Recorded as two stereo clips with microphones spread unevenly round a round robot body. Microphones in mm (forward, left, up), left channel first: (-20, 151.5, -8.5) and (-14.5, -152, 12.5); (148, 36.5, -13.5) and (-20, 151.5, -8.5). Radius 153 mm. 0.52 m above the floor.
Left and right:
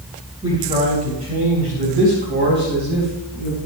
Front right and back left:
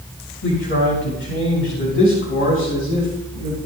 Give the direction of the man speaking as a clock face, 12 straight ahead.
12 o'clock.